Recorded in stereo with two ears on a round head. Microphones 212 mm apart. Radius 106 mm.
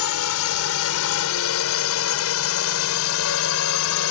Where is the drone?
65° left (ahead or behind).